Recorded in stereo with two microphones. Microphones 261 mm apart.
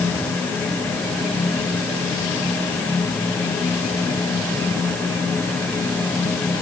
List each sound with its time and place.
Only background noise.